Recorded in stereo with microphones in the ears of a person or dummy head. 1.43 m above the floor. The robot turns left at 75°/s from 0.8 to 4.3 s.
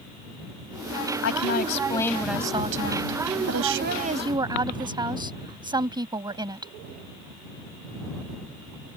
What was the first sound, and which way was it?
A woman speaking, 80° left.